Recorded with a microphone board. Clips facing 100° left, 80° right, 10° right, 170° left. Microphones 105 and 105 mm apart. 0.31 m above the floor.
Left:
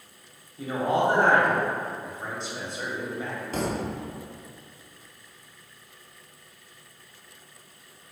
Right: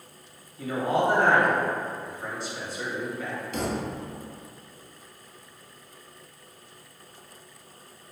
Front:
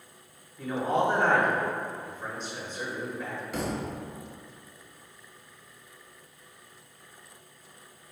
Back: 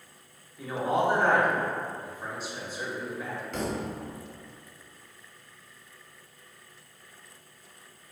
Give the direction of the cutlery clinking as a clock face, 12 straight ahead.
I don't hear cutlery clinking.